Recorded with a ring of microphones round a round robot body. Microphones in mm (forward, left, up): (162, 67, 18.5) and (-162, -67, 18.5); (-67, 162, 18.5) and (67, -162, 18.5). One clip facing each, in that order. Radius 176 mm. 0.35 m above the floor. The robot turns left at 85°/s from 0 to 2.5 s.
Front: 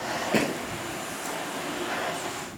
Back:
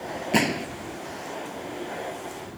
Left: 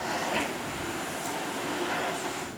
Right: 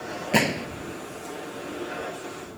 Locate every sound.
0.3 s a gunshot: 80° right; by 0.7 s 110° right